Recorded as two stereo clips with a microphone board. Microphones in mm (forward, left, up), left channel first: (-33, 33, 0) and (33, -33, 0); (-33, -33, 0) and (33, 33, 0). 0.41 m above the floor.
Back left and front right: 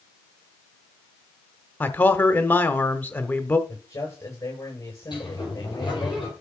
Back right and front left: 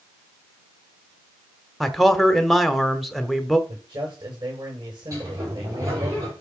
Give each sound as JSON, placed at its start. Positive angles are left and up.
{"t": 1.8, "sound": "a man speaking", "azimuth_deg": 135, "distance_m": 1.0}
{"t": 3.7, "sound": "a man speaking", "azimuth_deg": 75, "distance_m": 9.0}
{"t": 5.1, "sound": "a sliding door", "azimuth_deg": 95, "distance_m": 8.5}